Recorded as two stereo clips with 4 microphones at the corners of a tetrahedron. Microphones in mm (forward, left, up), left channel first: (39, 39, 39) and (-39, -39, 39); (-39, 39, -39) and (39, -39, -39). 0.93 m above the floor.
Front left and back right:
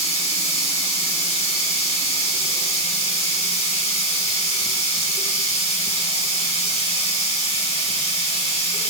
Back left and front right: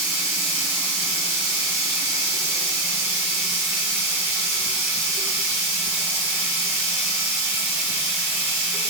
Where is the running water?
30° left, 3.5 m.